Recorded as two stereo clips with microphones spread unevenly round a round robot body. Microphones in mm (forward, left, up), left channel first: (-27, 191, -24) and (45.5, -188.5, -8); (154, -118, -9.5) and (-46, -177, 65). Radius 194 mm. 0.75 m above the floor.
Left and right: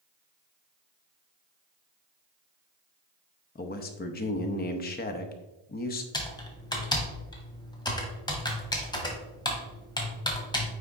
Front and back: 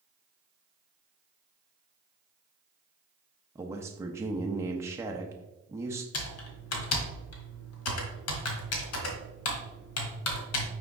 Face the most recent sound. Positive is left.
turn(degrees=20)